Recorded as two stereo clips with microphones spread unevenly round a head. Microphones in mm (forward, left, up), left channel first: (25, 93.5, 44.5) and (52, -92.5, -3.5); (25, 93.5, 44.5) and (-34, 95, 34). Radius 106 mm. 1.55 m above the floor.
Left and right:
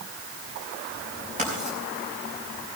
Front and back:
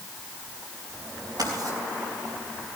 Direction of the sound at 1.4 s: 145° right.